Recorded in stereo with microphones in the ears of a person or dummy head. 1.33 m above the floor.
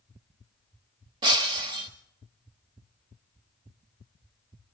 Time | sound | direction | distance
1.2 | breaking glass | 25° right (ahead or behind) | 1.3 m